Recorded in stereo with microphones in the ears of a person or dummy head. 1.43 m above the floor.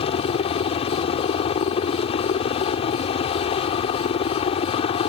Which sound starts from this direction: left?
A helicopter, at 0.0 s.